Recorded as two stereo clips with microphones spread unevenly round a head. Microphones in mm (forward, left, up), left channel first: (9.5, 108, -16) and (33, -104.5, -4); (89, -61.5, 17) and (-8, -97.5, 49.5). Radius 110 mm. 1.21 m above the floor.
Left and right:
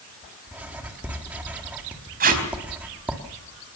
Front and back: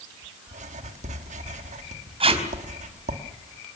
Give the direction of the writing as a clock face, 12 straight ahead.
6 o'clock.